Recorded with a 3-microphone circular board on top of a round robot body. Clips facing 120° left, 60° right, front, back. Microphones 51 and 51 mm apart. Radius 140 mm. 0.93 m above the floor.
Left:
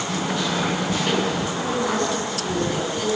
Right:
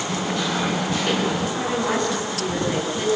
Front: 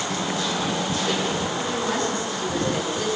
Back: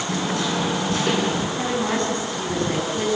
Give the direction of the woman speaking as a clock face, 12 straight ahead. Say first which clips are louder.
Even, back 2 dB; 4 o'clock.